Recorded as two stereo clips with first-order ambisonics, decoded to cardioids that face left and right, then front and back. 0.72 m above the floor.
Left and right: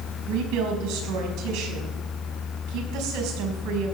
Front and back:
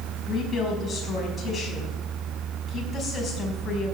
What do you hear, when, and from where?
0.3 s a woman speaking: 80° right, 4.5 m